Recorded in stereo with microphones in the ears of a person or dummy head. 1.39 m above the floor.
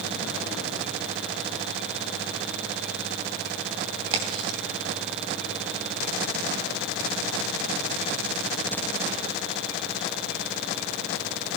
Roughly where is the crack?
Right.